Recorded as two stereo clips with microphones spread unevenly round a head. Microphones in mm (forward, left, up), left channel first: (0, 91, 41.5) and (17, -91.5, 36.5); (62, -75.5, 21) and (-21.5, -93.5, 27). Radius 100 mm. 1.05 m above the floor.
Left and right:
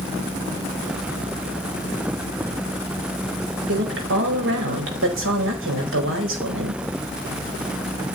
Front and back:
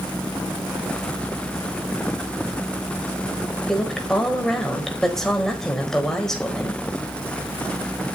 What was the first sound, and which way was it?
A woman speaking, 75° right.